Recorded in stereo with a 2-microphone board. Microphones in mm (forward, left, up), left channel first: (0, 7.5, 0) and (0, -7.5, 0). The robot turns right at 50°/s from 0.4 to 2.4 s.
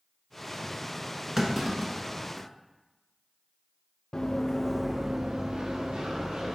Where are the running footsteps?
55° left (ahead or behind), 0.8 m; by 6.5 s 80° right, 2 m.